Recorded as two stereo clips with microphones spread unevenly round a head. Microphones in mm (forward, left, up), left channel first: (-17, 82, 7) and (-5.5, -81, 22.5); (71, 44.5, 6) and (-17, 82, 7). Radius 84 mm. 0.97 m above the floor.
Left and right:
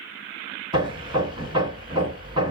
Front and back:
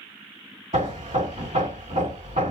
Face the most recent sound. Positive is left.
turn(degrees=-150)